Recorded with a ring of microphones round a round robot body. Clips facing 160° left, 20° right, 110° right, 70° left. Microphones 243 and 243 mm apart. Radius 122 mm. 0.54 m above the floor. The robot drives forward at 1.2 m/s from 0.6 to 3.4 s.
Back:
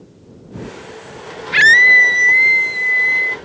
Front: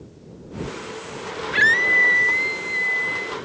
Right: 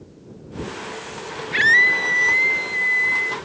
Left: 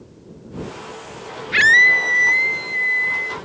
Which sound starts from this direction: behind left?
A scream, at 1.5 s.